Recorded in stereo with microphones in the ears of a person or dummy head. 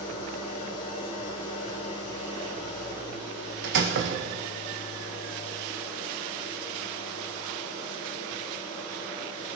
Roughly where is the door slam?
Right.